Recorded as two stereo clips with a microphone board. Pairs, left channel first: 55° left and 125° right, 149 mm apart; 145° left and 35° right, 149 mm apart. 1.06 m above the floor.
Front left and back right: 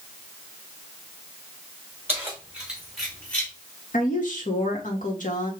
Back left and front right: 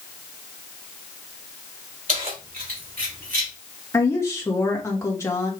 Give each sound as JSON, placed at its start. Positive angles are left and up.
{"t": 2.1, "sound": "keys jangling", "azimuth_deg": -50, "distance_m": 3.0}
{"t": 3.9, "sound": "a woman speaking", "azimuth_deg": 75, "distance_m": 1.6}